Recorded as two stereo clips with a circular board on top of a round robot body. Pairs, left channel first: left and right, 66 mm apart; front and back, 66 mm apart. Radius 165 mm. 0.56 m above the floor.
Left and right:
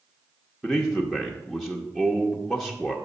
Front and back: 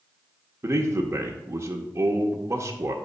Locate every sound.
0.6 s a man speaking: 170° left, 0.9 m